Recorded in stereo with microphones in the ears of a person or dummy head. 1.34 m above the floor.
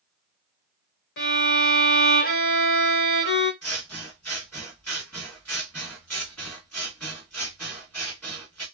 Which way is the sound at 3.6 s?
Centre (ahead or behind).